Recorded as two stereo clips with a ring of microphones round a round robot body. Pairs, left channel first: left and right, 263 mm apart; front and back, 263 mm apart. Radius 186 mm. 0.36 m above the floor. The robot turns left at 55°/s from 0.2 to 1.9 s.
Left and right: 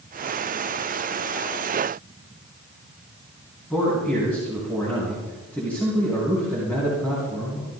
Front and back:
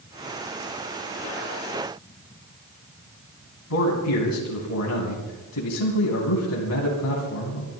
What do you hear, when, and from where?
3.7 s a man speaking: 5° left, 3.5 m